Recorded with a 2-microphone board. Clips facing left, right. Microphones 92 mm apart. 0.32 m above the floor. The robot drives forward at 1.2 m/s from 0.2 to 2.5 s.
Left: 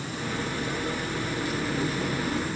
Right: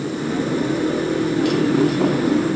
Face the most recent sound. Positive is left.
turn(degrees=-70)  # may be behind; listen again after turning